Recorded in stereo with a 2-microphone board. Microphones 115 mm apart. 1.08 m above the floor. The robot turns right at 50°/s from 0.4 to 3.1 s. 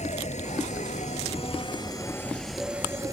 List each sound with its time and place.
0.0 s an insect: 75° left; by 3.1 s 150° right